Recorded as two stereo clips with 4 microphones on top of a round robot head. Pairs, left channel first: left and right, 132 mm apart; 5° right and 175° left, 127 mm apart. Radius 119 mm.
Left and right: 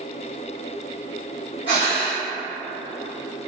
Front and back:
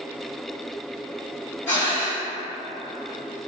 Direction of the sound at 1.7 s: 50° left.